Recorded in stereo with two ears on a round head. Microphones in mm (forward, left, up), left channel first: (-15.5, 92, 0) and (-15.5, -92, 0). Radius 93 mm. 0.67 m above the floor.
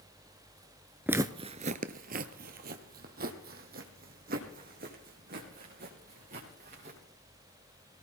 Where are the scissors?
I don't hear scissors.